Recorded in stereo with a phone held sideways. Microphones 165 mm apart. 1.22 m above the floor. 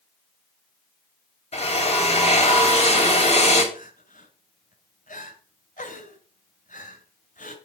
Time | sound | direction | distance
1.5 | a drill | 40° left (ahead or behind) | 3.5 m
3.7 | crying | 50° left (ahead or behind) | 2 m